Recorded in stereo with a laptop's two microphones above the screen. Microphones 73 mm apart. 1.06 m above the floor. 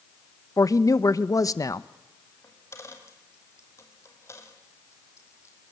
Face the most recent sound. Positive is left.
turn(degrees=40)  # may be behind; listen again after turning